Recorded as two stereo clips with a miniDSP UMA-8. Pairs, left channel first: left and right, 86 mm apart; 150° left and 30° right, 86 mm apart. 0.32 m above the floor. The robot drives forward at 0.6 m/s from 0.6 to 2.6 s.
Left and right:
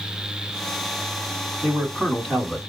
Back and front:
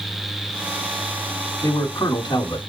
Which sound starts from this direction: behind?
A man speaking, at 1.6 s.